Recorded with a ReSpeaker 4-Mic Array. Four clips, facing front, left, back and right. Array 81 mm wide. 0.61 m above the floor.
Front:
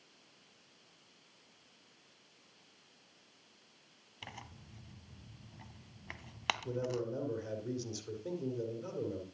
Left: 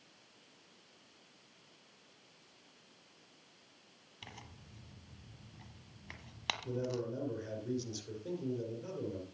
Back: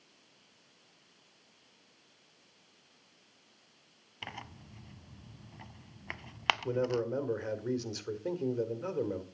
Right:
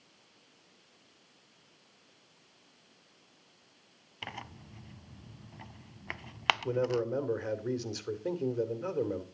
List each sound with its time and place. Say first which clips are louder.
4.2 s tearing paper: right 10 dB, back 5 dB; 125° right, 0.6 m
6.6 s a man speaking: right 5 dB, back 5 dB; 130° right, 2.5 m